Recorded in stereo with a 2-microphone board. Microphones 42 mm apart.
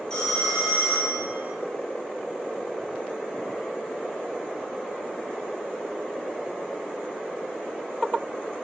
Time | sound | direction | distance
0.1 | a phone ringing | 20° left (ahead or behind) | 2.5 m